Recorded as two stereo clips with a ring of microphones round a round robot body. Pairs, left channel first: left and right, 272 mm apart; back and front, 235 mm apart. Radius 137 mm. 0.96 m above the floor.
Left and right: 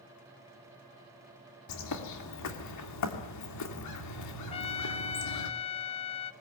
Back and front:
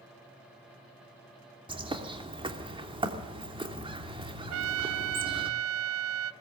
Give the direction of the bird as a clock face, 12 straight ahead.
10 o'clock.